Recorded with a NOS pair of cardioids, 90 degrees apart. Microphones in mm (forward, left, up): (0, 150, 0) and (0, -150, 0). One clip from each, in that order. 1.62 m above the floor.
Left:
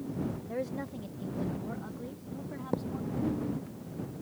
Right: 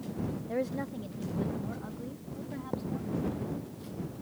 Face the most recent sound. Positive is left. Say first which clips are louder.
# left 3 dB
turn(degrees=30)